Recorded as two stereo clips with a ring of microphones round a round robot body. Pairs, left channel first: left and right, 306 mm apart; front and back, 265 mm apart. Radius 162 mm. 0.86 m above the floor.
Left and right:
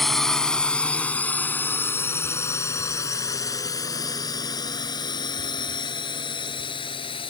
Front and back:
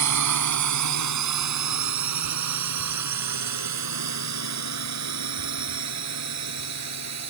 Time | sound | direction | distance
0.0 | a drone | straight behind | ?